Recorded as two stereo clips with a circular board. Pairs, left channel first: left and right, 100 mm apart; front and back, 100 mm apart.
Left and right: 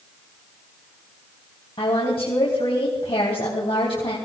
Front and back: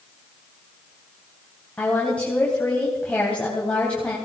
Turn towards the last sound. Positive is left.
turn(degrees=75)